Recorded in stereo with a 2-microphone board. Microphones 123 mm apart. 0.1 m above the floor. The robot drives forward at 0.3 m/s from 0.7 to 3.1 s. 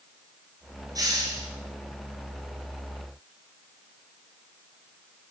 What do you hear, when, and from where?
0.9 s a hiss: 30° right (ahead or behind), 1.7 m